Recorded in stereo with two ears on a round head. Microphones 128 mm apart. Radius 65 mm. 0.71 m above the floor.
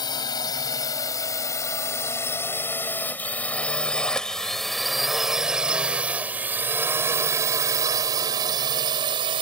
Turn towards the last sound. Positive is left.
turn(degrees=-35)  # may be behind; listen again after turning